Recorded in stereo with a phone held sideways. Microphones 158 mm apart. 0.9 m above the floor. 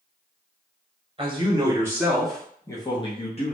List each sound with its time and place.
1.2 s a man speaking: 35° right (ahead or behind), 0.9 m; by 3.5 s 45° left (ahead or behind), 0.9 m